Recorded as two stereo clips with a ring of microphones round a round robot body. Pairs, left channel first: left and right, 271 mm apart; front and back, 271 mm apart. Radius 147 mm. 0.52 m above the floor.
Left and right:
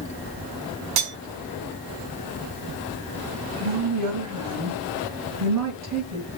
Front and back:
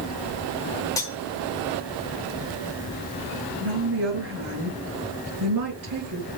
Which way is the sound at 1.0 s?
80° right.